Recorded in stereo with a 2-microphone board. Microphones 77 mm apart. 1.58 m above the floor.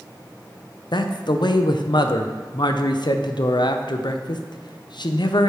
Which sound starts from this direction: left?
A man speaking, at 0.9 s.